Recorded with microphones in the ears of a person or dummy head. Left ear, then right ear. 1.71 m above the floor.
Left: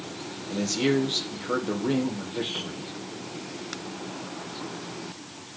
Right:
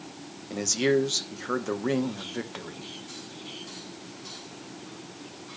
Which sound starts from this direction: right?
A man speaking, at 0.5 s.